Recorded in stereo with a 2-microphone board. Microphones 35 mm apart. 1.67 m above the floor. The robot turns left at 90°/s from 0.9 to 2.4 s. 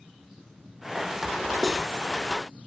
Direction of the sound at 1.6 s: 5° right (ahead or behind).